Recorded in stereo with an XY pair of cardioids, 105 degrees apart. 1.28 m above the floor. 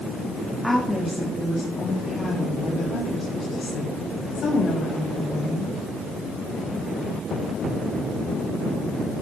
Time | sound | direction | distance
0.6 | a woman speaking | straight ahead | 2.0 m